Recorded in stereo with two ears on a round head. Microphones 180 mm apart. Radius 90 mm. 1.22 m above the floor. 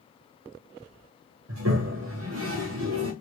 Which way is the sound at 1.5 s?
70° right (ahead or behind).